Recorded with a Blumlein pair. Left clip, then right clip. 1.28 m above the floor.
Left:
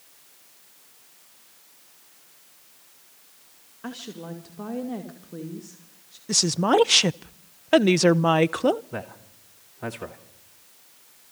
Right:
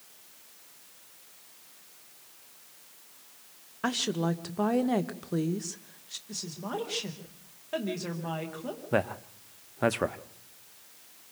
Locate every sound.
3.8 s a woman speaking: 50° right, 1.5 m
6.3 s a woman speaking: 50° left, 0.6 m
8.9 s a man speaking: 35° right, 1.2 m